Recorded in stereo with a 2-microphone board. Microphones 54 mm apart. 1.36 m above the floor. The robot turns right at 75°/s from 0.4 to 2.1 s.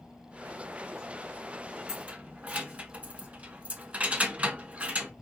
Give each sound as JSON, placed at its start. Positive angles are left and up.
{"t": 1.9, "sound": "keys jangling", "side_deg": -10, "distance_m": 1.2}